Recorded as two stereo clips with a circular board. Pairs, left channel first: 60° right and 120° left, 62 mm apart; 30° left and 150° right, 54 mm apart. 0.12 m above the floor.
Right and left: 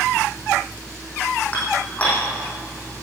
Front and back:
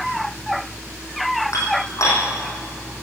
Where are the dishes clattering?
10° left, 4.5 m.